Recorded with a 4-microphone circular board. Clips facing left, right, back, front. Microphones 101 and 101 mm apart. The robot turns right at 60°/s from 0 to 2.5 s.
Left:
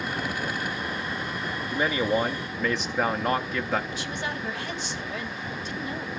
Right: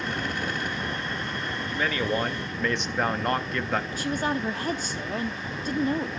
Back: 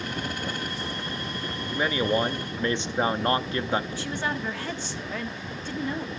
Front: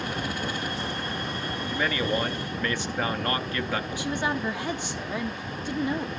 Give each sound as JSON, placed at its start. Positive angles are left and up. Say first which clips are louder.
{"t": 1.7, "sound": "a man speaking", "louder": "left 3 dB, back 3 dB", "azimuth_deg": 130, "distance_m": 0.6}
{"t": 3.9, "sound": "a woman speaking", "louder": "right 5 dB, front 2 dB", "azimuth_deg": -70, "distance_m": 1.0}